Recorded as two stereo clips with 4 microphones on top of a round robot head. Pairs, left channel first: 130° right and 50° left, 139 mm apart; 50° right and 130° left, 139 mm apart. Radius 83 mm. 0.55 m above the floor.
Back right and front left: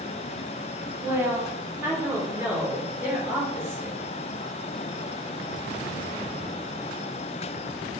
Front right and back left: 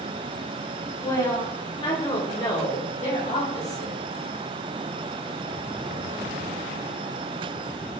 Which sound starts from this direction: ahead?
A woman speaking, at 1.0 s.